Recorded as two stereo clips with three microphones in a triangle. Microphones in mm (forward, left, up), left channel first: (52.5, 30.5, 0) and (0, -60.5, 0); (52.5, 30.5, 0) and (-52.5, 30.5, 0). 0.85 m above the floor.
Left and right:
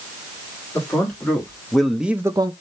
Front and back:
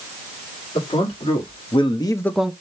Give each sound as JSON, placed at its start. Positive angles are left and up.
{"t": 0.8, "sound": "a man speaking", "azimuth_deg": -15, "distance_m": 1.9}